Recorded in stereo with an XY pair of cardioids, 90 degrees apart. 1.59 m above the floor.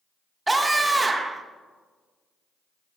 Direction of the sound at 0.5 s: 20° right.